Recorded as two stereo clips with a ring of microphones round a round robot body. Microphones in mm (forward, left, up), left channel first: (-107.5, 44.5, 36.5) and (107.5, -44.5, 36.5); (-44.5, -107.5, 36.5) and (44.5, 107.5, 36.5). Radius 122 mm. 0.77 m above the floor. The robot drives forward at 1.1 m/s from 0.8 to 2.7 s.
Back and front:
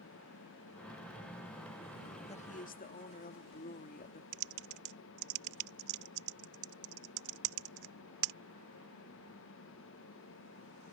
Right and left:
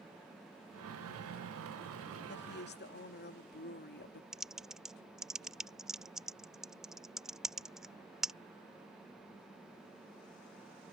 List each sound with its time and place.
2.3 s a woman speaking: 145° right; by 4.2 s 155° right
4.3 s typing on a keyboard: 20° right